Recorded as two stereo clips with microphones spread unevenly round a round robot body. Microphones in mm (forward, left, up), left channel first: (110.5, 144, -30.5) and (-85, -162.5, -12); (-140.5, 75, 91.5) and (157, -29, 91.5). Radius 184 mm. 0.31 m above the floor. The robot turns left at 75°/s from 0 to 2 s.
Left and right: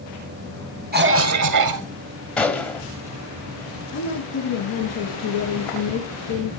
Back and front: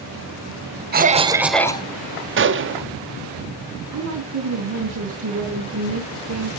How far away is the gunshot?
About 1.3 m.